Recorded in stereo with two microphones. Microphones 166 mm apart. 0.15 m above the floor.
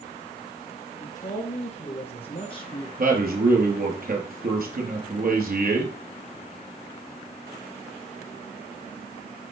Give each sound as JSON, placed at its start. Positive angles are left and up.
{"t": 1.0, "sound": "a man speaking", "side_deg": 45, "distance_m": 4.0}
{"t": 3.0, "sound": "a man speaking", "side_deg": -55, "distance_m": 3.0}